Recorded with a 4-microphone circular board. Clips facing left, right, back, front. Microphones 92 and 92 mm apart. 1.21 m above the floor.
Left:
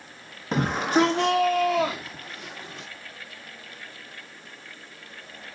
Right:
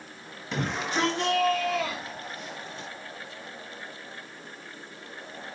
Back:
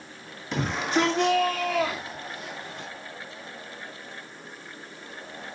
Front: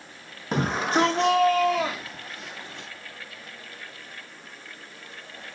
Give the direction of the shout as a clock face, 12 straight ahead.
11 o'clock.